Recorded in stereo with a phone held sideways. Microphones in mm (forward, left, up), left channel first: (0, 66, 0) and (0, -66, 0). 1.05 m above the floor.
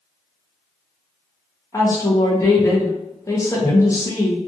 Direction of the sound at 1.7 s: 25° left (ahead or behind).